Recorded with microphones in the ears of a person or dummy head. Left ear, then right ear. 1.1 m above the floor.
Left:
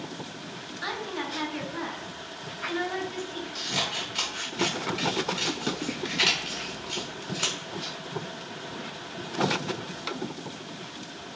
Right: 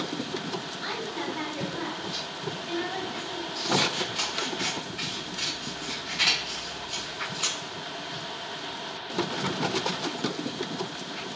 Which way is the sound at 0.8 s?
55° left (ahead or behind).